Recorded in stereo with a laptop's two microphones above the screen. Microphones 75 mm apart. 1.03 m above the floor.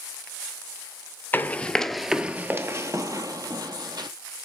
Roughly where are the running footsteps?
Left.